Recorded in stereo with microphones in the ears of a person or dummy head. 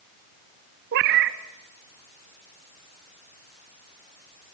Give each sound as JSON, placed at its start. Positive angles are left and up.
{"t": 0.9, "sound": "a cat meowing", "side_deg": -60, "distance_m": 1.0}